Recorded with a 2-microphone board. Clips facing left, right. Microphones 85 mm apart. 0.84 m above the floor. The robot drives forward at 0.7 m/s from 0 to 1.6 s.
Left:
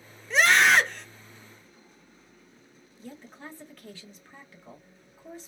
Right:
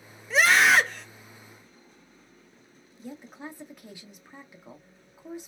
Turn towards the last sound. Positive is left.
turn(degrees=-15)  # may be behind; listen again after turning